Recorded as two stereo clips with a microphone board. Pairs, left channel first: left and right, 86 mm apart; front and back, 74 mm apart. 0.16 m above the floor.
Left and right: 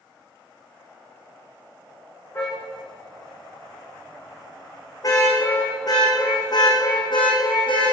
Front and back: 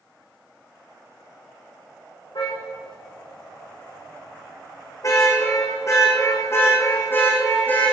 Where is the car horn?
25° left, 5.5 m; by 7.9 s 70° left, 4 m.